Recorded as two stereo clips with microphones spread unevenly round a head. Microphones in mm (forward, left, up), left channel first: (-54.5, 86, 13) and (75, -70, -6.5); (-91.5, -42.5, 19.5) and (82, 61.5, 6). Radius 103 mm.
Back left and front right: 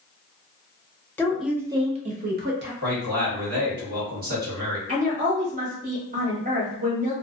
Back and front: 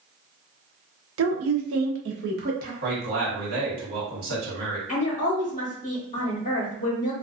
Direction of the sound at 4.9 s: 95° right.